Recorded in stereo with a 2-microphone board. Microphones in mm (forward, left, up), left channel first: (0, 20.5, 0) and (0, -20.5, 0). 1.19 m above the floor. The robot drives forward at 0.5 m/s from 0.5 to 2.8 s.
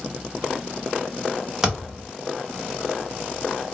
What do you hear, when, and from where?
1.6 s a thud: 15° right (ahead or behind), 1.5 m